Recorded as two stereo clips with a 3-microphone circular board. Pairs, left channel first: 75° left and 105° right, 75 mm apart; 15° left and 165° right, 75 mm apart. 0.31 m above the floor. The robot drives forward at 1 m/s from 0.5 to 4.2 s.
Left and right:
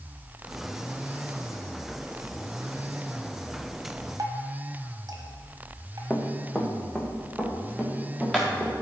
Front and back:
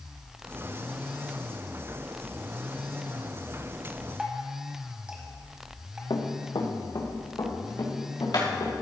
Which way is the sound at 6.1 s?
Straight ahead.